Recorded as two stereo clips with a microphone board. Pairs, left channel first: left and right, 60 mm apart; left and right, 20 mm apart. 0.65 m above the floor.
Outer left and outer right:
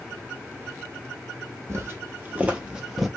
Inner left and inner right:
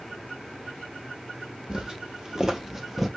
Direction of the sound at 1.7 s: 45° right (ahead or behind).